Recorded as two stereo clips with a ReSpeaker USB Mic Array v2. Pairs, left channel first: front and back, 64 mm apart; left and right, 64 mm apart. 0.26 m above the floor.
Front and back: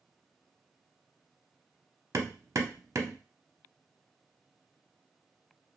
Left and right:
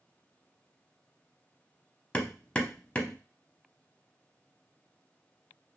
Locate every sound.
2.1 s hammering: 160° left, 0.6 m